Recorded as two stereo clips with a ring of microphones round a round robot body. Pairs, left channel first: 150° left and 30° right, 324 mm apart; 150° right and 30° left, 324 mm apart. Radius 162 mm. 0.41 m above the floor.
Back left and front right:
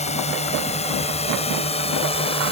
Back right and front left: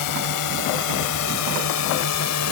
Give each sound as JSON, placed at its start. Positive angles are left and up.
{"t": 0.0, "sound": "a drone", "azimuth_deg": -140}